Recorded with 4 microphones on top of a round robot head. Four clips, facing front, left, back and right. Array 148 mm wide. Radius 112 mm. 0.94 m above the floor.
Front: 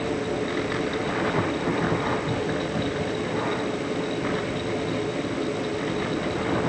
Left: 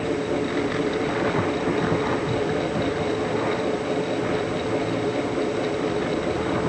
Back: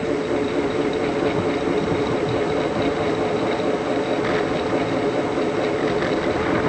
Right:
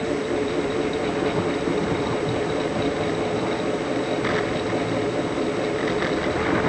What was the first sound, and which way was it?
Only background noise.